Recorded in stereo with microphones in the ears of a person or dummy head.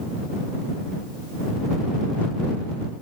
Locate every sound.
Only background noise.